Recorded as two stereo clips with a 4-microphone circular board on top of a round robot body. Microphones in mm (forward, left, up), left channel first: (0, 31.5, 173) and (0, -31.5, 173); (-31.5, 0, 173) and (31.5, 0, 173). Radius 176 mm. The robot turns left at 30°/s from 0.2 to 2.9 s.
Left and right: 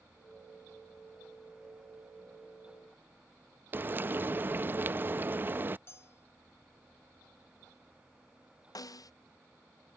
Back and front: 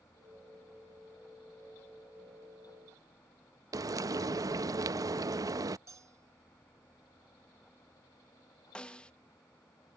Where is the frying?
30° right.